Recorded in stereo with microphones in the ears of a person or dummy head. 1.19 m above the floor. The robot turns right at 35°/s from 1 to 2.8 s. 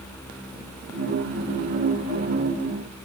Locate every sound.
Only background noise.